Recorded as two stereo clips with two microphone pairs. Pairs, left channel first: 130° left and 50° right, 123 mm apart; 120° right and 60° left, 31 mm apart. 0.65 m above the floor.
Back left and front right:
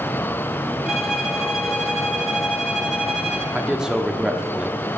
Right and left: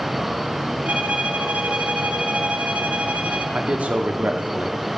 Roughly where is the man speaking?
Ahead left.